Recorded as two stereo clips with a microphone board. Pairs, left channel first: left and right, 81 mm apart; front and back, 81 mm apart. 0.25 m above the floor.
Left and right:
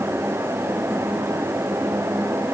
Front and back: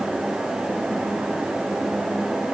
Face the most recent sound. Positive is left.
No sound to turn to.